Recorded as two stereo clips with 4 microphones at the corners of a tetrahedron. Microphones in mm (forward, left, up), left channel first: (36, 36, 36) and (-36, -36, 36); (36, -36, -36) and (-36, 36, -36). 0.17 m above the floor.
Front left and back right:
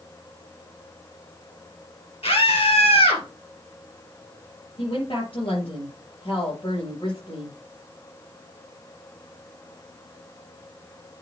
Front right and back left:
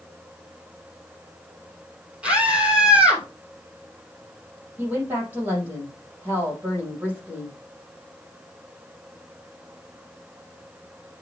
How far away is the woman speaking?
About 4.5 m.